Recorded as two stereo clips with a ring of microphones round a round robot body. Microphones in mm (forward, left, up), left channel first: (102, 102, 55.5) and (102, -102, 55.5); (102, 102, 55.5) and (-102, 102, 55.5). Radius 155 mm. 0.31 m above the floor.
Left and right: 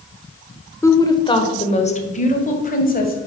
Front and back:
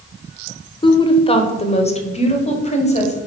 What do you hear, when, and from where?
0.8 s a woman speaking: 30° left, 1.2 m; by 3.2 s 55° left, 2.5 m